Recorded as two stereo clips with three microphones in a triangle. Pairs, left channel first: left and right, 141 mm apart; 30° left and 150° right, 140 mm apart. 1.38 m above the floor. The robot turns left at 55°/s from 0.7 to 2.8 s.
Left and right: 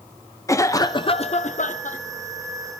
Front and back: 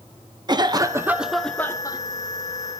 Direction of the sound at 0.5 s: 155° left.